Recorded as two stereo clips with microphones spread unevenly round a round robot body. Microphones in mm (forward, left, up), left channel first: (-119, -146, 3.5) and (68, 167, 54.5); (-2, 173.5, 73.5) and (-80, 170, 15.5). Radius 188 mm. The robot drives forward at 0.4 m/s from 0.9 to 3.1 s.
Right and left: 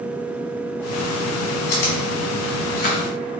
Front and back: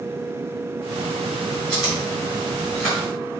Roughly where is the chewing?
Right.